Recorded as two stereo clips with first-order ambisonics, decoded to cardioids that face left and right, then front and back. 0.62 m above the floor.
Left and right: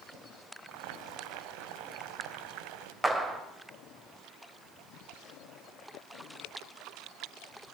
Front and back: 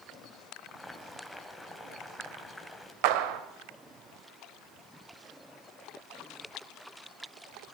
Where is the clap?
175° right, 2 m.